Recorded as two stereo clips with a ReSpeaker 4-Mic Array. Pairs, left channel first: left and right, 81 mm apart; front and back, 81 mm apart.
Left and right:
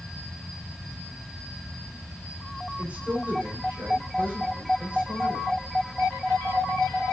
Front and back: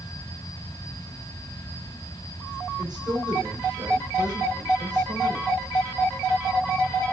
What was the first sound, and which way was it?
A man speaking, 155° right.